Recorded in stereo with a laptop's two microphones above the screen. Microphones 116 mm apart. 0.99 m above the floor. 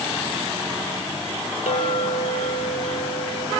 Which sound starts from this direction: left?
A clink, at 1.7 s.